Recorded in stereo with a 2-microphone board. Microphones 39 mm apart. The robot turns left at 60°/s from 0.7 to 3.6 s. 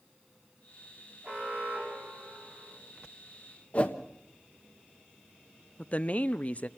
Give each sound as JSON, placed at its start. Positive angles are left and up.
{"t": 1.2, "sound": "an alarm", "azimuth_deg": -30, "distance_m": 7.5}
{"t": 3.7, "sound": "a whoosh", "side_deg": 40, "distance_m": 1.2}
{"t": 5.8, "sound": "a woman speaking", "side_deg": 40, "distance_m": 0.6}